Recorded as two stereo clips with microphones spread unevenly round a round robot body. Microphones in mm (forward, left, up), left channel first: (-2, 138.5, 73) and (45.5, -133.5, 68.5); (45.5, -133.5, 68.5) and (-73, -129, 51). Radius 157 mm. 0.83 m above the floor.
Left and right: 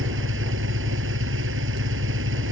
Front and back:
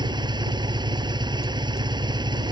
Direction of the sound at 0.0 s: 130° right.